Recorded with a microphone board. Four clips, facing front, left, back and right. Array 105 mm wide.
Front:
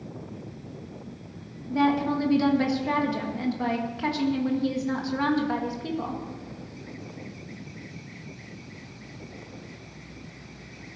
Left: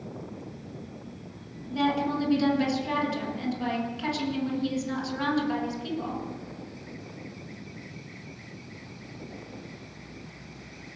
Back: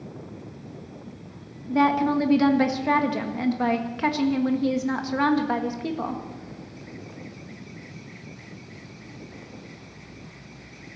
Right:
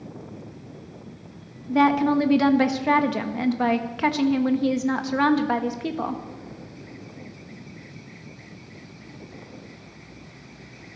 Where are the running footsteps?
No running footsteps in this recording.